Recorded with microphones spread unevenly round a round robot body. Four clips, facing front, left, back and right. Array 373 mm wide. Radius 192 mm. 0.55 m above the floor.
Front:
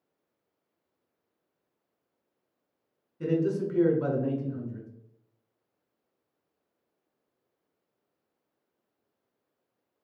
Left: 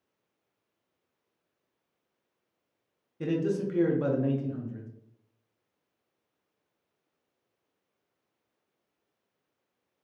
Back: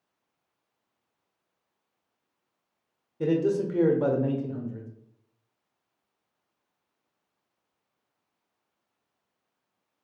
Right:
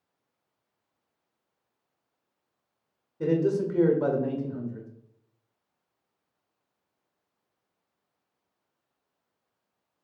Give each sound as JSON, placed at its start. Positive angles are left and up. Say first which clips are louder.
{"t": 3.2, "sound": "a man speaking", "louder": "right 4 dB, back 3 dB", "azimuth_deg": 175, "distance_m": 0.8}